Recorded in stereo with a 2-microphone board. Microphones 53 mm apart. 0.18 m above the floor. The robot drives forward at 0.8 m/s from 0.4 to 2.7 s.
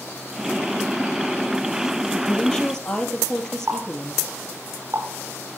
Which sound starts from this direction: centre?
A woman speaking, at 2.1 s.